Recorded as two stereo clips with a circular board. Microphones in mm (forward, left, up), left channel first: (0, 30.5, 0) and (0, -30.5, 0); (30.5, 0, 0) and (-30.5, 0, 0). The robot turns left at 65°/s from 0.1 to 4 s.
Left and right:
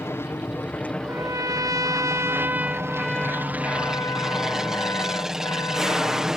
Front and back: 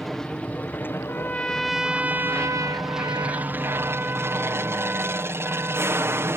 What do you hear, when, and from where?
0.0 s an aircraft: 85° left; by 6.4 s 170° right
1.0 s a trumpet: 50° right; by 6.4 s 120° left